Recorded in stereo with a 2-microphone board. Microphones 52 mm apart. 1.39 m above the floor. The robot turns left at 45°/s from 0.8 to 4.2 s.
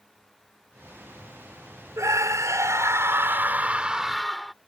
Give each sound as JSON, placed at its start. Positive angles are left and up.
{"t": 2.0, "sound": "a scream", "azimuth_deg": -75}